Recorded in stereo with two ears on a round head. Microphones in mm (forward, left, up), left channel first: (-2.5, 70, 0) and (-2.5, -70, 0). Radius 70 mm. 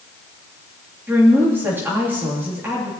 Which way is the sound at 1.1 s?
10° right (ahead or behind).